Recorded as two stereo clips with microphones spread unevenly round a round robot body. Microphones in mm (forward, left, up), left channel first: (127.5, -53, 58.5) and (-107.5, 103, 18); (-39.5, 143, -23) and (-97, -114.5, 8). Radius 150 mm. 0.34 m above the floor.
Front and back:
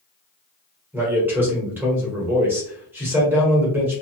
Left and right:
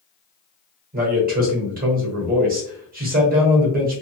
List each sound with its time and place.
0.9 s a man speaking: 145° right, 1.4 m